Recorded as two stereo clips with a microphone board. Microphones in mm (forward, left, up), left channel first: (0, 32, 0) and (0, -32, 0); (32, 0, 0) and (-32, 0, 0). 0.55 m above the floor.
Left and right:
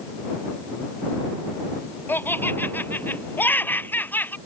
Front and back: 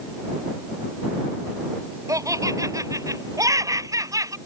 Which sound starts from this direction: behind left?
Laughter, at 2.1 s.